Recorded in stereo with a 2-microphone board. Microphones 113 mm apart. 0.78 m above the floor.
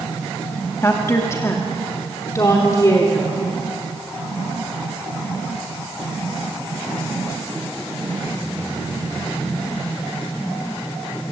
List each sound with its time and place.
0.8 s a woman speaking: 25° left (ahead or behind), 1.6 m; by 3.3 s 30° left (ahead or behind), 3 m